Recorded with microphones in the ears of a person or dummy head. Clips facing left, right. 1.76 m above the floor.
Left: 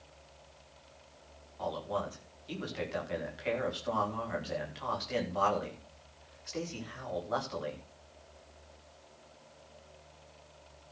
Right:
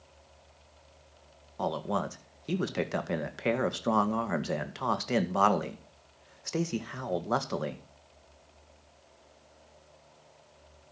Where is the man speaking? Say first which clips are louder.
Right 4 dB; 65° right (ahead or behind), 1.8 m.